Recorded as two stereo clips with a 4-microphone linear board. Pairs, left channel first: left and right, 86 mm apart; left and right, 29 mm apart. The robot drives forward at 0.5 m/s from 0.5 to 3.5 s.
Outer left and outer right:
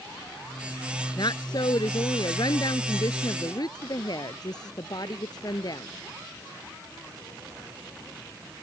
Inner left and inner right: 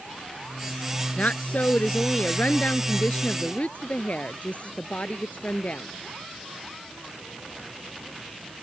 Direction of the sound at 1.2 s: 60° left (ahead or behind).